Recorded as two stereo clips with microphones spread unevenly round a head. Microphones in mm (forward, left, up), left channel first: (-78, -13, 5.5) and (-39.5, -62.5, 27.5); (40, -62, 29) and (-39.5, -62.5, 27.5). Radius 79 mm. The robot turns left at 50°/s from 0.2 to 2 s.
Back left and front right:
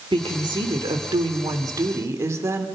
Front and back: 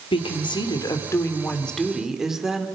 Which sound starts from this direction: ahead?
A woman speaking, at 0.1 s.